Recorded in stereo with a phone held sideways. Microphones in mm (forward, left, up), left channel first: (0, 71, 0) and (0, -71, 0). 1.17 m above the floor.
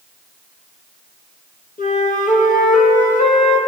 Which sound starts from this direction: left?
A flute, at 1.8 s.